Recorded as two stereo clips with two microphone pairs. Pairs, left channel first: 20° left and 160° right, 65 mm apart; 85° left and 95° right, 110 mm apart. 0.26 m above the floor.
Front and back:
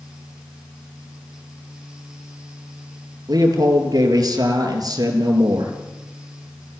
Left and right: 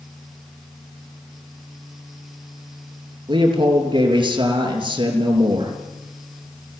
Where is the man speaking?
135° right, 4.5 m.